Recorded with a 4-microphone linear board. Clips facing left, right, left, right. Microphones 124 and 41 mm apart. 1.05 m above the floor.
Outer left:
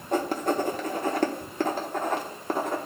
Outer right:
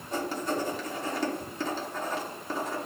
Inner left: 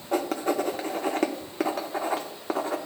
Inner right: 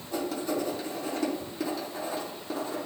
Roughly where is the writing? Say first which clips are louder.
Outer left 5 dB, inner left 5 dB; left.